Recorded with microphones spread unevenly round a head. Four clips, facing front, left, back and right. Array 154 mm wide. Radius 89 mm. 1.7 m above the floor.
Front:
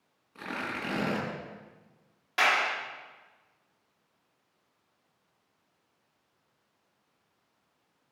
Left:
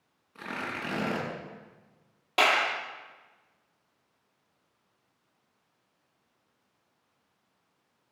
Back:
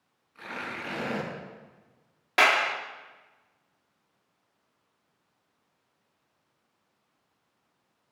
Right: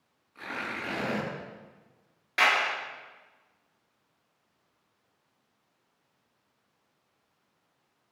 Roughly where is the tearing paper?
Ahead left.